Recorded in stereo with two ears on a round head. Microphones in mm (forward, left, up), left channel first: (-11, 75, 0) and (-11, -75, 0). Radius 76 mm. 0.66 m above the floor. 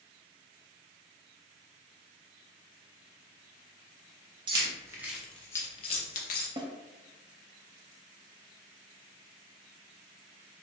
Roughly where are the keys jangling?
Right.